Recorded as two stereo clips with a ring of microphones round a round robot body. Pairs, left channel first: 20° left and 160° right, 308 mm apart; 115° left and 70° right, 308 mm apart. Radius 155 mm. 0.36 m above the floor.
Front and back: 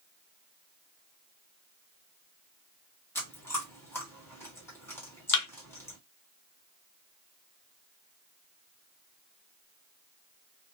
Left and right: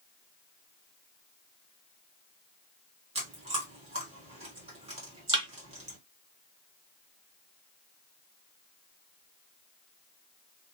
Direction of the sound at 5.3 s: 5° left.